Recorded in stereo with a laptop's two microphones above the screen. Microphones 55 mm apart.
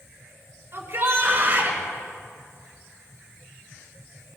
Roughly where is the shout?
Right.